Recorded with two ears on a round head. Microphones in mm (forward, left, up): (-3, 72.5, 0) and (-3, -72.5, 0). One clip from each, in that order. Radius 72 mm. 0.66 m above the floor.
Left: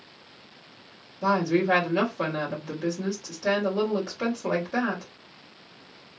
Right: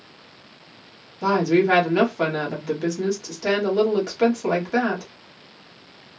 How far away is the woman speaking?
About 1.4 m.